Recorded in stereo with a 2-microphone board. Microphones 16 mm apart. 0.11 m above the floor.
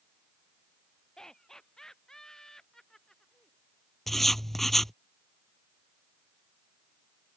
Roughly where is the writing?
Centre.